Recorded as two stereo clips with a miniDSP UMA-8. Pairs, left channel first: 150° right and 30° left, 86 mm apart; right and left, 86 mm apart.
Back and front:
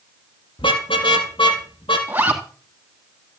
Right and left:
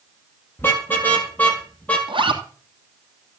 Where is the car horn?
155° right, 4 m; by 2.0 s 165° right, 4.5 m.